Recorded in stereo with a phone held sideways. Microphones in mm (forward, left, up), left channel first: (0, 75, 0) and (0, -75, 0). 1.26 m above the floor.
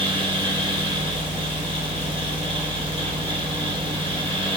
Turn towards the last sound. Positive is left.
turn(degrees=-35)  # may be behind; listen again after turning